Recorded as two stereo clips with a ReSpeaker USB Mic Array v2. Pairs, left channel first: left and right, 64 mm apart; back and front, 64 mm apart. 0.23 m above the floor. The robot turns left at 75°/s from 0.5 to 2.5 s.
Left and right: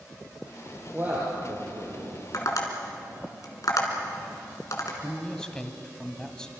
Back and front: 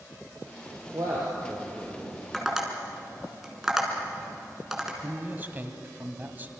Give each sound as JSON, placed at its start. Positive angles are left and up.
{"t": 0.9, "sound": "a man speaking", "azimuth_deg": -20, "distance_m": 5.0}
{"t": 2.3, "sound": "tapping", "azimuth_deg": 95, "distance_m": 3.5}
{"t": 5.0, "sound": "a man speaking", "azimuth_deg": 25, "distance_m": 1.8}